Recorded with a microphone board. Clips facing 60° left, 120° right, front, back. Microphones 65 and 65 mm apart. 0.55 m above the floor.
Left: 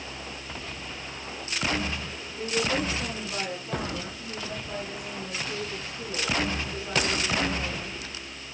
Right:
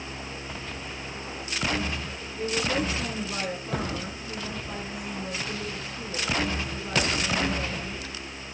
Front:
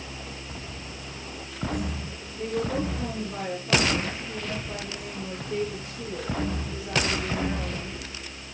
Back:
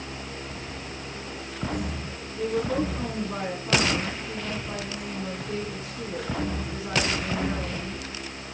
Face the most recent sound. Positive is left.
turn(degrees=175)